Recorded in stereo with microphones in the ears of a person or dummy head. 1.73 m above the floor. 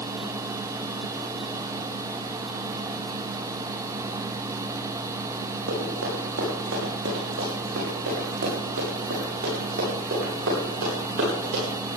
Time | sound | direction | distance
5.7 | running footsteps | 75° right (ahead or behind) | 6.5 m